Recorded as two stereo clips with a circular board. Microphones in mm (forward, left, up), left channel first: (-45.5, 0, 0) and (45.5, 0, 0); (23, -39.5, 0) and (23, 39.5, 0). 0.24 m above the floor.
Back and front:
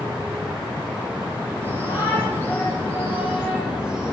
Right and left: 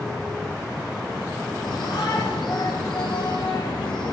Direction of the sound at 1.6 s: 65° right.